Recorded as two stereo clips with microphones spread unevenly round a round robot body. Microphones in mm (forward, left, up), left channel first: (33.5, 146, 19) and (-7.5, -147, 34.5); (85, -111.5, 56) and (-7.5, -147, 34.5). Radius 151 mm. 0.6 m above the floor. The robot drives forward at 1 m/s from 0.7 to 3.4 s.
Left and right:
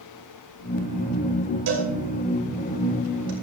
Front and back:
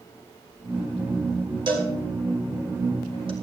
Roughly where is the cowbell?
Behind right.